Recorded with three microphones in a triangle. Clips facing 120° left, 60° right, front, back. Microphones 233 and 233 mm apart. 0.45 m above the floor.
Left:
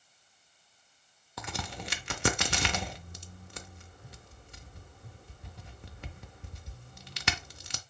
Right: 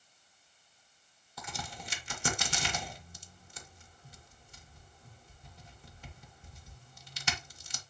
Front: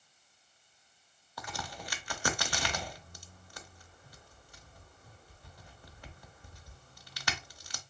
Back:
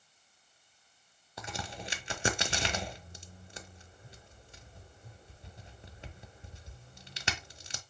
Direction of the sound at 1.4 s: 120° left.